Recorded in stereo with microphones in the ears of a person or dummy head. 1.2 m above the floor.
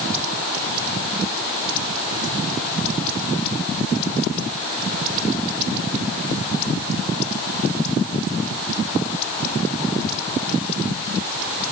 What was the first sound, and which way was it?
Only background noise.